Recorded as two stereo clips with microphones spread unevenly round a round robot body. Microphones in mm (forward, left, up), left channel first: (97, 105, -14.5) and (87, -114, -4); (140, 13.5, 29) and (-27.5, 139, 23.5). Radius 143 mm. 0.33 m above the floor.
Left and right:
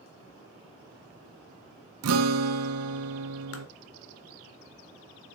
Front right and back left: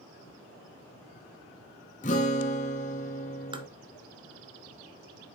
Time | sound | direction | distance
2.0 | a guitar | 100° right | 0.7 m
3.5 | tapping | 75° left | 1.3 m